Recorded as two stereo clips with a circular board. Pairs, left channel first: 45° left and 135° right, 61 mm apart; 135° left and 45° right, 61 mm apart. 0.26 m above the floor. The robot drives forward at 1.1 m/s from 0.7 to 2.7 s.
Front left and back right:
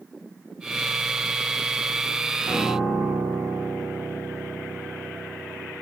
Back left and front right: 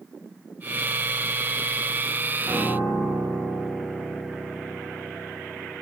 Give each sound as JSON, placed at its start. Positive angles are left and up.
{"t": 2.5, "sound": "a piano", "azimuth_deg": 140, "distance_m": 1.7}